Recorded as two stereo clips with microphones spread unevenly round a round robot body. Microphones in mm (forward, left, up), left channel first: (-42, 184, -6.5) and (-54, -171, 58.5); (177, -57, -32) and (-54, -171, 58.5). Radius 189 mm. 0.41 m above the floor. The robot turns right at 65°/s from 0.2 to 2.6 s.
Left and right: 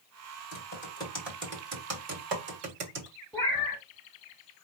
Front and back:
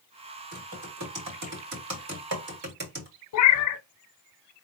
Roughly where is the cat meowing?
Ahead.